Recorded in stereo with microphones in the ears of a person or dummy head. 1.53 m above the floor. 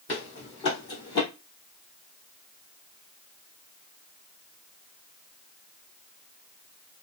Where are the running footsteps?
35° left (ahead or behind), 2.5 m; by 1.2 s 25° left (ahead or behind), 1.8 m.